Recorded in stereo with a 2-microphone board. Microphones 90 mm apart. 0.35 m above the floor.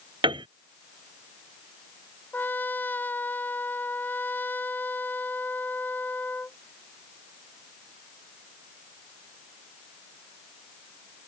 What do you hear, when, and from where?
0.2 s a piano: 75° right (ahead or behind)
2.3 s a trumpet: 20° left (ahead or behind)